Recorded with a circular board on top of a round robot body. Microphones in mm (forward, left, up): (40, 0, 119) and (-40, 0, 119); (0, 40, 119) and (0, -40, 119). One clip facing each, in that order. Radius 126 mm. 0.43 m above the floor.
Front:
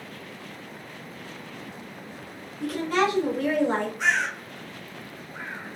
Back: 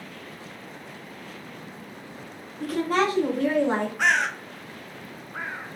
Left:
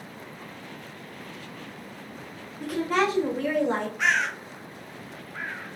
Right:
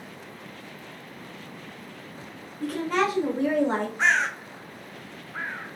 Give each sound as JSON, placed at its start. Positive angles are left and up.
{"t": 2.6, "sound": "a woman speaking", "azimuth_deg": 160, "distance_m": 1.6}
{"t": 4.0, "sound": "a bird", "azimuth_deg": -150, "distance_m": 0.5}